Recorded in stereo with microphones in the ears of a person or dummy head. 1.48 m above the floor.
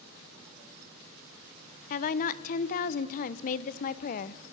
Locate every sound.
1.9 s a woman speaking: 45° left (ahead or behind), 0.9 m